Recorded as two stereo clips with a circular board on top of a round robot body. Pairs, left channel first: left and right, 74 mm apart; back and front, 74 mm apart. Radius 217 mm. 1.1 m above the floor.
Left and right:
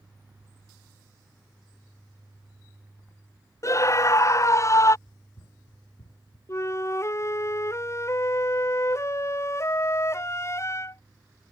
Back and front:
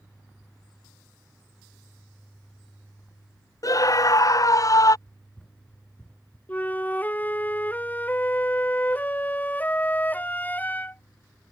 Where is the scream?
140° left.